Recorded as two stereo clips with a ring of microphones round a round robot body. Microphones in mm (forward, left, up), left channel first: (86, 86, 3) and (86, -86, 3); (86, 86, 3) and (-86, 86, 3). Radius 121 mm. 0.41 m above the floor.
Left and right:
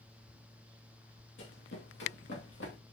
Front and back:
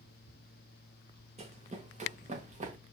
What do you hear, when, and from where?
1.4 s running footsteps: 125° left, 2.5 m; by 2.8 s 135° left, 3.5 m